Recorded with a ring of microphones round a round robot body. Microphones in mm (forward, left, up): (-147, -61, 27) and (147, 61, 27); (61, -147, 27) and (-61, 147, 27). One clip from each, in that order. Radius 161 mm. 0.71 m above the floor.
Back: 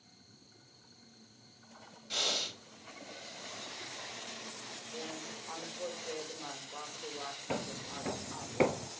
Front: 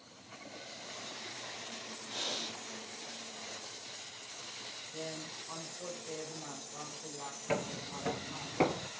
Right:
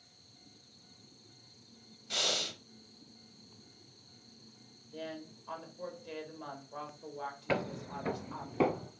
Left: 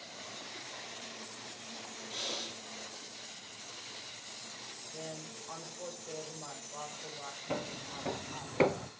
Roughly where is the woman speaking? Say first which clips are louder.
Even, right 4 dB; behind right.